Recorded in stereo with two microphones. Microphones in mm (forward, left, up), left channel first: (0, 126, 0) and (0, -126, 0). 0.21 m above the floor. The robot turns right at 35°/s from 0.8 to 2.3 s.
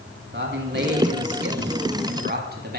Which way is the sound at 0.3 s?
110° right.